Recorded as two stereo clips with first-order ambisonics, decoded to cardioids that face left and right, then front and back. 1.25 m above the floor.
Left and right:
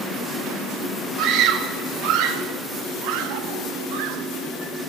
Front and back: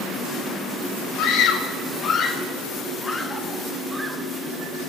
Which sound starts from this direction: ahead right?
A scream, at 1.2 s.